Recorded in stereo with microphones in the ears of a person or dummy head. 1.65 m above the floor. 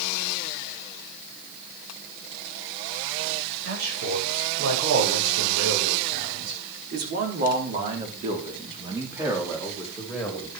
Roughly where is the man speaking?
Right.